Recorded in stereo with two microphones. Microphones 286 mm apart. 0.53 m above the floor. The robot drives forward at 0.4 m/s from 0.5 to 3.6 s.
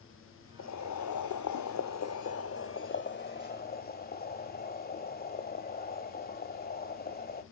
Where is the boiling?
65° left (ahead or behind), 0.7 m; by 7.4 s 35° left (ahead or behind), 1.1 m.